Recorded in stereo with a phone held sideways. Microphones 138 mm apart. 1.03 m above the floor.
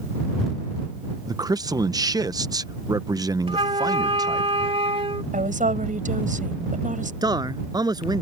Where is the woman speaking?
70° right (ahead or behind).